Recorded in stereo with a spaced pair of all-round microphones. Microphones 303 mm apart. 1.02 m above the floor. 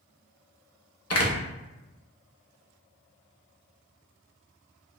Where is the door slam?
55° left (ahead or behind), 0.6 m.